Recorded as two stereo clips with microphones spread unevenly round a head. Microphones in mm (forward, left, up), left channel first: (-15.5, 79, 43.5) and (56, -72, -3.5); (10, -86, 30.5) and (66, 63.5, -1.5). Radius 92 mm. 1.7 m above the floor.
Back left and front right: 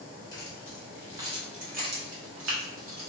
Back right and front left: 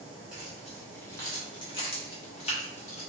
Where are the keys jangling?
160° left, 0.9 m; by 3.1 s 75° right, 1.2 m.